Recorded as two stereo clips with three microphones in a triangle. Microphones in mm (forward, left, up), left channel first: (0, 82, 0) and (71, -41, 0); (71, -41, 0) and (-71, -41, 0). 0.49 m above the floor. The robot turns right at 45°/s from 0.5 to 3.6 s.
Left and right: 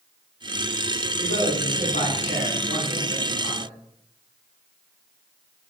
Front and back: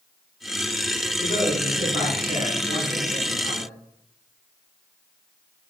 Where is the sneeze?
I don't hear a sneeze.